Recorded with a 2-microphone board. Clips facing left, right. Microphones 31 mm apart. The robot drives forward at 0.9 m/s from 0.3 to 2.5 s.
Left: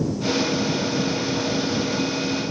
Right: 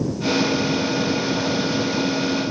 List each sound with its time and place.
Only background noise.